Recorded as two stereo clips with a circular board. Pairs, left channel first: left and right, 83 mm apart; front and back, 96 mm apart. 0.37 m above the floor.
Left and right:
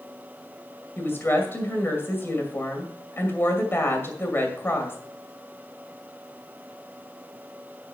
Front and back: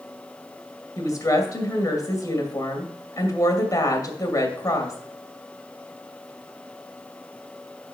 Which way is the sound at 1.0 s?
35° left.